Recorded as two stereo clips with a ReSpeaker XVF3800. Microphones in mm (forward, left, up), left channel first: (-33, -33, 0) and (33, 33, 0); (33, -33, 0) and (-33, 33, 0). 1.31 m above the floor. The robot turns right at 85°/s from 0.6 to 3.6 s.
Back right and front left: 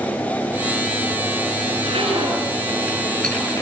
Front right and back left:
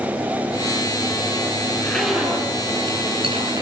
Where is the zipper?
10° left, 9 m; by 3.6 s 170° left, 9 m.